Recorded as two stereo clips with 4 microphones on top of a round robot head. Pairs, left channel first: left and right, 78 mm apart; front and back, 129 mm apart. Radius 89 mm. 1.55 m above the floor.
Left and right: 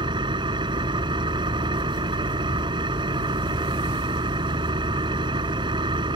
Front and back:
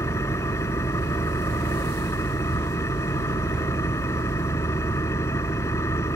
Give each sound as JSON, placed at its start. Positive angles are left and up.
{"t": 0.0, "sound": "an engine running", "azimuth_deg": -75}